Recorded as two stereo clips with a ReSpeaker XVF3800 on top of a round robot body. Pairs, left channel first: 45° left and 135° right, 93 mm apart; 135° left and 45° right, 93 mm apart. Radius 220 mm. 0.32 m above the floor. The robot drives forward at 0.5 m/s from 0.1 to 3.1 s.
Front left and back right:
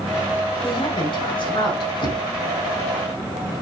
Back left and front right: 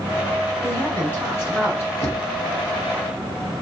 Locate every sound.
0.6 s a woman speaking: 65° left, 4 m; by 1.9 s 75° left, 4 m
2.0 s knocking: 70° left, 3.5 m; by 2.3 s 75° left, 3.5 m